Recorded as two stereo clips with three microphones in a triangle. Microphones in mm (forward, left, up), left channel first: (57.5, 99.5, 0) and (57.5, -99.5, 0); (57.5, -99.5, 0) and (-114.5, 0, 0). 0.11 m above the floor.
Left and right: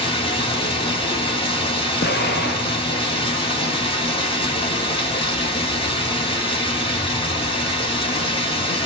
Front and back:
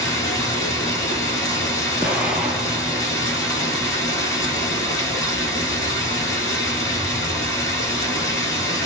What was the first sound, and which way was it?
Running water, 35° left.